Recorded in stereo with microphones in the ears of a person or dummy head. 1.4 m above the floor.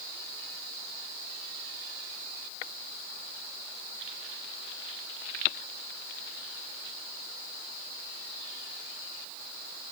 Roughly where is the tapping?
I don't hear tapping.